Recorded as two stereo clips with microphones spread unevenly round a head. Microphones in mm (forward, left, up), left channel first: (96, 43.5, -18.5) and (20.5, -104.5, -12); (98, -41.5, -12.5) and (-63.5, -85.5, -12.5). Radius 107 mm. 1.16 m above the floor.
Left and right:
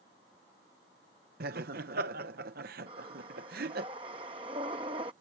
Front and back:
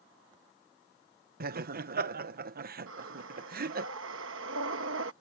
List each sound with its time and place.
1.4 s laughter: 150° right
2.9 s breathing: 175° left